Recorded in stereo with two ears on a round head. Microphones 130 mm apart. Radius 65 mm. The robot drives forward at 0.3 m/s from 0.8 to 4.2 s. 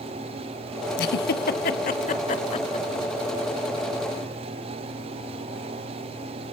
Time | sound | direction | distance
1.0 | a giggle | 80° left | 0.6 m